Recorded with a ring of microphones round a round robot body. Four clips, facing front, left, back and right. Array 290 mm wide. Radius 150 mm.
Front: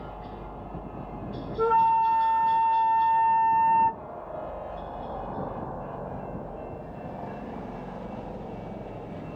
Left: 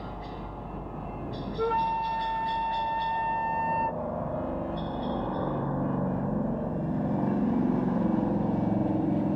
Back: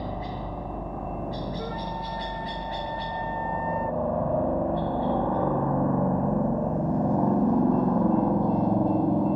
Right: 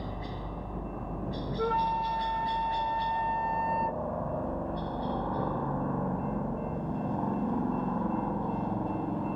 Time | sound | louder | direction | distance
0.0 | a helicopter | even, back 6 dB | 175° right | ?
1.6 | a flute | left 2 dB, front 11 dB | 15° left | ?